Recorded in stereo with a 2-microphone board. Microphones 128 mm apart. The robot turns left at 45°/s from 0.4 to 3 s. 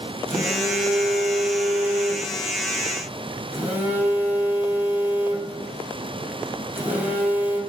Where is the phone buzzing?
50° right, 2.5 m; by 7.6 s 165° right, 2.5 m.